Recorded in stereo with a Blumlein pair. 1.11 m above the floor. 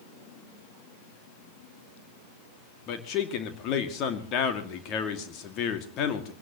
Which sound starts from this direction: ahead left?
A man speaking, at 2.9 s.